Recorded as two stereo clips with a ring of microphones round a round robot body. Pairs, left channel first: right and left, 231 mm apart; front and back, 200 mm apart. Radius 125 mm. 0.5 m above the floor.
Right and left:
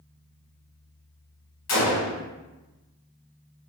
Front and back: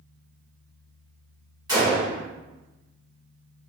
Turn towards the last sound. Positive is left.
turn(degrees=-105)